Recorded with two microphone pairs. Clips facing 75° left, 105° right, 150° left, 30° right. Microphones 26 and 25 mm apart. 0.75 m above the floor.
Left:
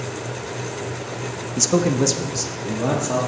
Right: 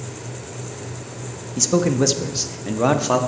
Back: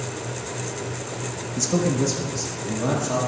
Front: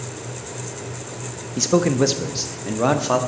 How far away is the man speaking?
About 0.6 m.